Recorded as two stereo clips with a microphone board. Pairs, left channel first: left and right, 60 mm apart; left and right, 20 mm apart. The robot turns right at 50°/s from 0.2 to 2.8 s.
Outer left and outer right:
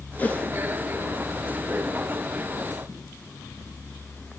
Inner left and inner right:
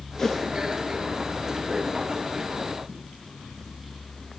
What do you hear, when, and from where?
0.2 s a whoosh: 25° left (ahead or behind), 1.2 m; by 0.5 s 20° left (ahead or behind), 1.2 m